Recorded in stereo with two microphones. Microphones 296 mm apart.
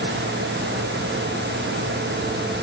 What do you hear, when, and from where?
Only background noise.